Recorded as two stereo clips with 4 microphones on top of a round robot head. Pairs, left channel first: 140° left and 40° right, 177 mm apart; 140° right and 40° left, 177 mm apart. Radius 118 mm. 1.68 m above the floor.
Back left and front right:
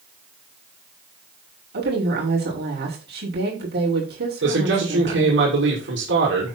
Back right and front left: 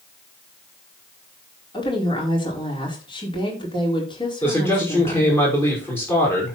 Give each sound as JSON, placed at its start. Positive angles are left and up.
{"t": 1.7, "sound": "a woman speaking", "azimuth_deg": -75, "distance_m": 5.5}
{"t": 4.4, "sound": "a man speaking", "azimuth_deg": -60, "distance_m": 6.0}